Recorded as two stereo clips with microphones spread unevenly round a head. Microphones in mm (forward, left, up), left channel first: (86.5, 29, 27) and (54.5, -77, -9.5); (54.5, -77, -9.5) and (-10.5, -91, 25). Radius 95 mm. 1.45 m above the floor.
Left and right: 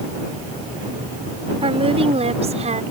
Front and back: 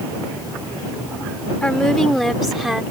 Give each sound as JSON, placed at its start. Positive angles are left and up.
{"t": 1.6, "sound": "a woman speaking", "azimuth_deg": -70}